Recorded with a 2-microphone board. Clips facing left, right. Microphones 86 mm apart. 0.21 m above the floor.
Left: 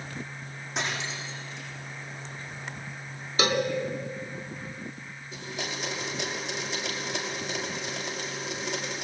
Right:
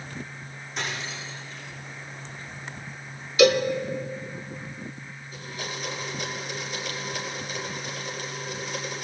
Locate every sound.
0.8 s cutlery clinking: 75° left (ahead or behind), 8.5 m
3.4 s a cowbell: 40° left (ahead or behind), 2.0 m
5.3 s a blender: 70° left (ahead or behind), 5 m